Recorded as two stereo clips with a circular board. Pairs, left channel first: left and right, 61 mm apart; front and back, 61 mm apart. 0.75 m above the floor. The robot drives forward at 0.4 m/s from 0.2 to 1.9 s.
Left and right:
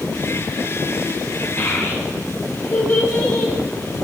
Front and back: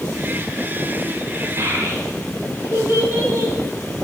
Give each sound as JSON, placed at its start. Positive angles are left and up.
{"t": 1.6, "sound": "a child speaking", "azimuth_deg": 135, "distance_m": 4.5}